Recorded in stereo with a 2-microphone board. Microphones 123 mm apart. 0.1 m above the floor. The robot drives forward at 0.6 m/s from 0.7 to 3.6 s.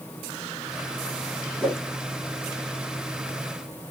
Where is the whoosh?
5° left (ahead or behind), 3 m.